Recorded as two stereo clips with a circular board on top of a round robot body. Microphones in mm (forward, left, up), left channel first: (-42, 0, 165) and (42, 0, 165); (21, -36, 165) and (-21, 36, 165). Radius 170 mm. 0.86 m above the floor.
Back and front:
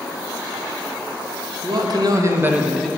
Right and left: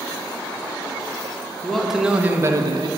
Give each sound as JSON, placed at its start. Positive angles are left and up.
{"t": 1.6, "sound": "a man speaking", "azimuth_deg": 25, "distance_m": 1.5}